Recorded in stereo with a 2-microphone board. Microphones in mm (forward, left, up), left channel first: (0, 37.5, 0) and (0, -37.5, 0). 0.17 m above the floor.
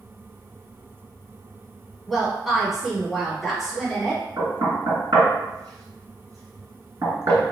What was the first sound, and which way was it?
A woman speaking, centre (ahead or behind).